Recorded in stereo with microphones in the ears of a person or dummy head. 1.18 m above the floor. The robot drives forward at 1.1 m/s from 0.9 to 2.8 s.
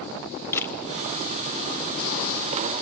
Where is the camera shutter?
15° left (ahead or behind), 1.5 m.